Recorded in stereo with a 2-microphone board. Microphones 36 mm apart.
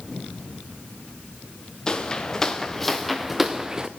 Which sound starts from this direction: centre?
Footsteps, at 1.9 s.